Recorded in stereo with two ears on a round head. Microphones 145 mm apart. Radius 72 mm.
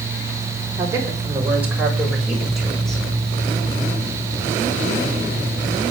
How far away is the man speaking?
About 6 m.